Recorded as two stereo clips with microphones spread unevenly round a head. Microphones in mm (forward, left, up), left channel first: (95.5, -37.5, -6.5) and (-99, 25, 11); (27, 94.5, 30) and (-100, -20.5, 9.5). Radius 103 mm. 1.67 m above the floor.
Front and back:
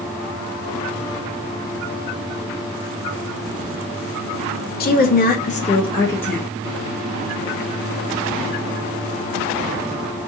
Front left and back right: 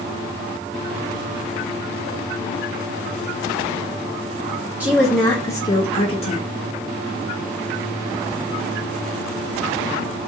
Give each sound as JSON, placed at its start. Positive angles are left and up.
{"t": 4.8, "sound": "a woman speaking", "azimuth_deg": -50, "distance_m": 0.7}